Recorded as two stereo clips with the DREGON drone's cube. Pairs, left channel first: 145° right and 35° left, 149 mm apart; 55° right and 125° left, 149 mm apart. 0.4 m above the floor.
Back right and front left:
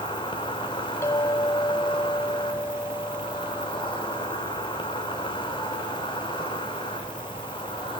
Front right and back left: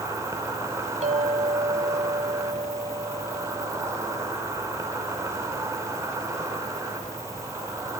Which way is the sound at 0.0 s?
Straight behind.